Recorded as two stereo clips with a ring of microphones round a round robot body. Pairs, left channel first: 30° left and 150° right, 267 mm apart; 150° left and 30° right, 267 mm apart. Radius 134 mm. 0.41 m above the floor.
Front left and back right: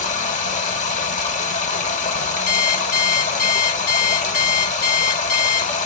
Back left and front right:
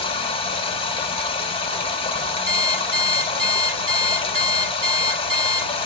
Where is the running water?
85° left, 1.1 m.